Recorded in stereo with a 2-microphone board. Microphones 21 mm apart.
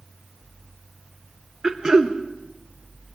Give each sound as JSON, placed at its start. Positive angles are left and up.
{"t": 1.6, "sound": "throat clearing", "side_deg": -25, "distance_m": 0.9}